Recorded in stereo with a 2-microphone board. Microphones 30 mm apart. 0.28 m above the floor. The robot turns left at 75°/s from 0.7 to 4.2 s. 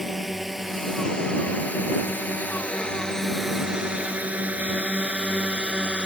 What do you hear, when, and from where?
0.0 s a drone: 10° right (ahead or behind); by 6.1 s 30° right (ahead or behind)